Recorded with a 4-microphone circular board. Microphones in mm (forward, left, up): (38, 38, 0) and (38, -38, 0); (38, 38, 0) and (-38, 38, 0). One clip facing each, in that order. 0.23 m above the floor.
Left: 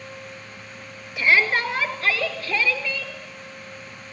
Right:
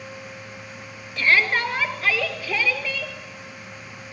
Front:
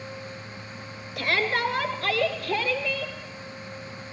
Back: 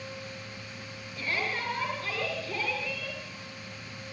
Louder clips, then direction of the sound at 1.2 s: Even, front 8 dB; 5° left.